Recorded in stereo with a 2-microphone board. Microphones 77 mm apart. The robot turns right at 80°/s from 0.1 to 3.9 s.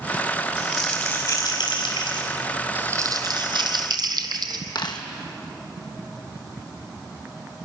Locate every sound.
0.6 s crumpling: 10° right, 5 m; by 2.3 s 125° left, 5 m
2.8 s crumpling: 155° right, 1.6 m; by 4.6 s 65° right, 1.6 m
4.8 s a dropped coin: 70° left (ahead or behind), 1.8 m